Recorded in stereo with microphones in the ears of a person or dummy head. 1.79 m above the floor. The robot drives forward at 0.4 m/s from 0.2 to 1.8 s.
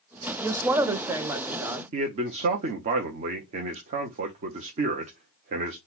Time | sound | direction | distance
0.4 | a woman speaking | 20° right (ahead or behind) | 0.7 m
1.9 | a man speaking | 45° right (ahead or behind) | 0.8 m